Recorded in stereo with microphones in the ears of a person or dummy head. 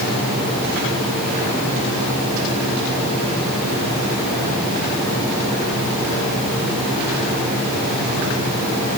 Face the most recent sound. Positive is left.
No sound to turn to.